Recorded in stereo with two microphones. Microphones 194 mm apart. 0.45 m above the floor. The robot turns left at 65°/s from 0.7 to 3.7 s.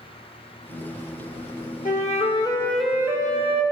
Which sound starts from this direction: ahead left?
A flute, at 1.9 s.